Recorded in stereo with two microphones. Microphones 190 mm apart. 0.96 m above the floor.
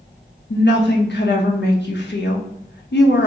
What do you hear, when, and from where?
0.5 s a woman speaking: 70° left (ahead or behind), 0.6 m